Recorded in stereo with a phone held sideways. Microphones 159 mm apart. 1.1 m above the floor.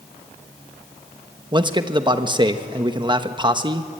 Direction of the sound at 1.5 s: 25° right (ahead or behind).